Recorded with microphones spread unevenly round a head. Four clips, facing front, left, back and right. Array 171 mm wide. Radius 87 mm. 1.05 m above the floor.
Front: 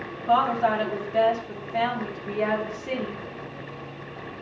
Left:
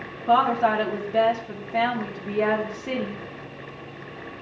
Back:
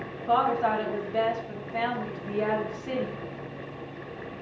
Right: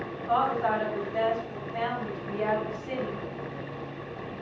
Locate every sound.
0.3 s a woman speaking: 75° left, 2.5 m